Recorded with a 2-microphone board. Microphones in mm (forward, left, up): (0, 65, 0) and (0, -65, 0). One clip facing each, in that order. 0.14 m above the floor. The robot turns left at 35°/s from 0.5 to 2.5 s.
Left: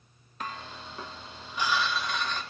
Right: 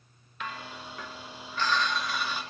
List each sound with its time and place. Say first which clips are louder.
0.4 s dishes clattering: even; 55° left, 1.1 m; by 2.4 s 15° right, 1.1 m